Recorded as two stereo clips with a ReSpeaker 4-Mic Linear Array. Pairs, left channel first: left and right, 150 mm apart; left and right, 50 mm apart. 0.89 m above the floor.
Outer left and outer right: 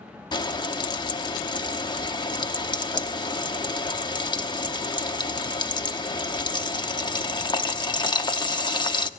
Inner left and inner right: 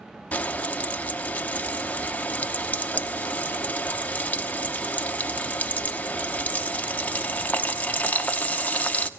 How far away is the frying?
About 0.8 m.